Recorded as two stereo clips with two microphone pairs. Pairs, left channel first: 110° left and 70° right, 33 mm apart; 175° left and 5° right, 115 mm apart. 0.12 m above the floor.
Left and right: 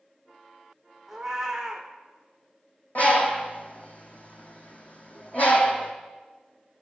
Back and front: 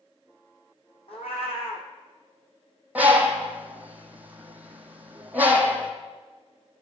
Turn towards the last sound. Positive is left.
turn(degrees=75)